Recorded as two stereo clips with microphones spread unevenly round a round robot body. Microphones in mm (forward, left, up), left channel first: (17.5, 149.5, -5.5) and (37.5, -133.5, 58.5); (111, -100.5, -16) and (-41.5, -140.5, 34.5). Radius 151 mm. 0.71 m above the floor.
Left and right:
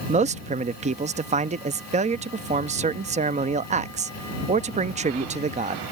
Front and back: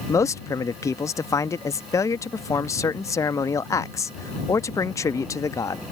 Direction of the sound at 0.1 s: 15° right.